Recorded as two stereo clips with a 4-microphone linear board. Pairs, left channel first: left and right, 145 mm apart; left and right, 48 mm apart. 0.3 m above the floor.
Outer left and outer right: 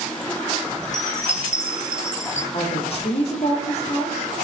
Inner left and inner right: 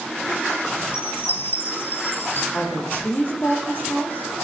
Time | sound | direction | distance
0.8 | a chime | 55° left (ahead or behind) | 3 m
2.5 | a woman speaking | 45° left (ahead or behind) | 9.5 m